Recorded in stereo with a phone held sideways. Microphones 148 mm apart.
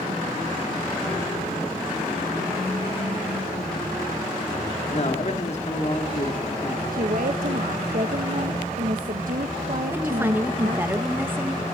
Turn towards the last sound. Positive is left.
turn(degrees=-15)  # may be behind; listen again after turning